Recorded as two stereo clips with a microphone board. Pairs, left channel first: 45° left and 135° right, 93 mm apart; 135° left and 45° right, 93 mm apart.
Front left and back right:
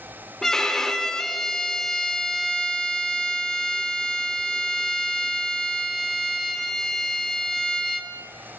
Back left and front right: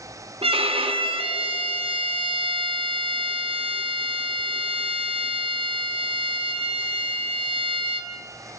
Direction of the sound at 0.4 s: 40° right.